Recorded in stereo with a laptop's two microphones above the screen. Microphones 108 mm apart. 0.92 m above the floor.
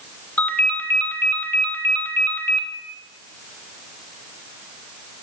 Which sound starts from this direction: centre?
A ringtone, at 0.4 s.